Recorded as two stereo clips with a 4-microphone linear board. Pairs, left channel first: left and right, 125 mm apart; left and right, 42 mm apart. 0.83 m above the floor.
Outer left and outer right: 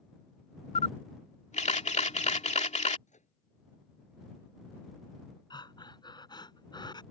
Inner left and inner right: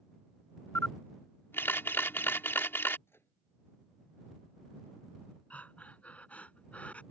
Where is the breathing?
35° left (ahead or behind).